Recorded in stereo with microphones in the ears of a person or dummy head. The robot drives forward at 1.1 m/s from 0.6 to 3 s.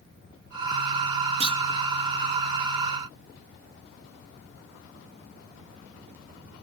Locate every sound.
1.4 s a clunk: 35° right (ahead or behind), 0.7 m; by 1.6 s 25° right (ahead or behind), 0.9 m